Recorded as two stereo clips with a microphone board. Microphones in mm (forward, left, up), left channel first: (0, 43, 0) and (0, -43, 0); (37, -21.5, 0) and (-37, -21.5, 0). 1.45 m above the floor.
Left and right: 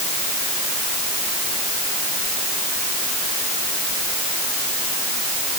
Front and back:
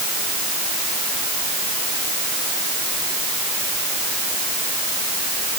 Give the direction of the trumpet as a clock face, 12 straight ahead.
I don't hear a trumpet.